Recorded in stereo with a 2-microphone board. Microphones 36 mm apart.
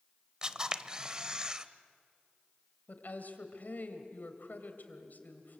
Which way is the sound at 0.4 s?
25° right (ahead or behind).